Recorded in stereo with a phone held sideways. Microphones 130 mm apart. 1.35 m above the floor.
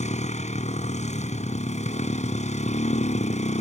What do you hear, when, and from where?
0.0 s a motorcycle: 65° left (ahead or behind)